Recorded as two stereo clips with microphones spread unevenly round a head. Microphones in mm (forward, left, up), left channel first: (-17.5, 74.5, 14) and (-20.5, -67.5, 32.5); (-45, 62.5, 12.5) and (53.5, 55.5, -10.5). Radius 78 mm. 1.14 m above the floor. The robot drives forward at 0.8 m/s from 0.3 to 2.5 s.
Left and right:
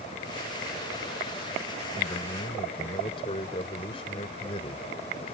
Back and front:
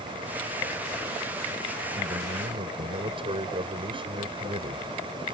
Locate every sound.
1.9 s a man speaking: 30° left